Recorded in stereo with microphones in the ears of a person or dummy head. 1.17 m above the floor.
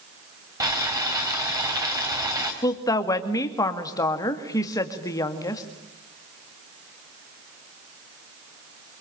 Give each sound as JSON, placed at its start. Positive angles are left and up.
{"t": 0.6, "sound": "boiling", "side_deg": -15, "distance_m": 3.5}
{"t": 2.6, "sound": "a woman speaking", "side_deg": 20, "distance_m": 2.0}